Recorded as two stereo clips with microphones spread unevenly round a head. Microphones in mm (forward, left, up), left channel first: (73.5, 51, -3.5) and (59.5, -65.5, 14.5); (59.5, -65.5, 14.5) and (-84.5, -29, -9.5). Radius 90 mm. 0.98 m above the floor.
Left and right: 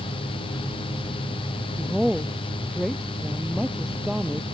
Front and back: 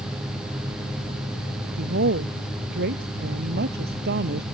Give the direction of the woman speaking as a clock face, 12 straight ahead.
6 o'clock.